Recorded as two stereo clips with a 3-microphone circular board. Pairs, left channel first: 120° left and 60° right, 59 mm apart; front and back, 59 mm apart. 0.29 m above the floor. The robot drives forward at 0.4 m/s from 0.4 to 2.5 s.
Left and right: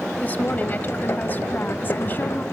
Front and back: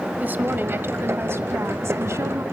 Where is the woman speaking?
155° left, 1.1 m; by 2.4 s 170° left, 1.7 m.